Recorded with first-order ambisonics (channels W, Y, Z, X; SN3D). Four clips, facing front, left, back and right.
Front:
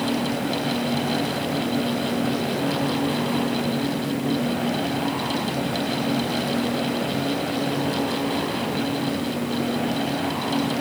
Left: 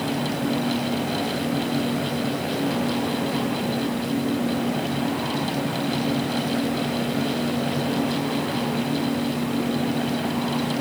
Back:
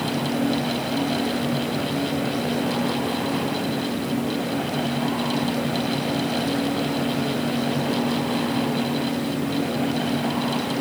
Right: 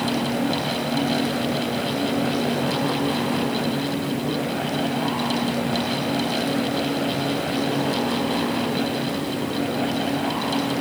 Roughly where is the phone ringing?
I don't hear a phone ringing.